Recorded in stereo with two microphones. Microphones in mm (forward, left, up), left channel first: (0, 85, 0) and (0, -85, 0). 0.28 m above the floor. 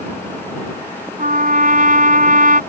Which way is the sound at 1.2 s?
55° right (ahead or behind).